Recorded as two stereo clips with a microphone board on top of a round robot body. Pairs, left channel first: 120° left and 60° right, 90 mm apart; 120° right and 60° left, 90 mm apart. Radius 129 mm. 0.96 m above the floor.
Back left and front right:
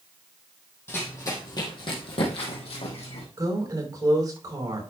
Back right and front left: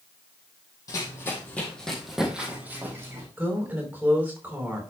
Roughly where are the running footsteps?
Behind.